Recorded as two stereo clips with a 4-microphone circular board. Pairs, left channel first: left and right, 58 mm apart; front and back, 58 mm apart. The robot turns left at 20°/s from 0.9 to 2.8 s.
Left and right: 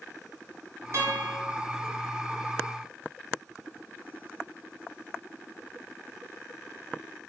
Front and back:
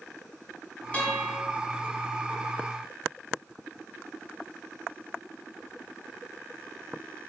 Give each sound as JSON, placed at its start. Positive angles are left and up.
{"t": 0.9, "sound": "a guitar", "azimuth_deg": -60, "distance_m": 0.9}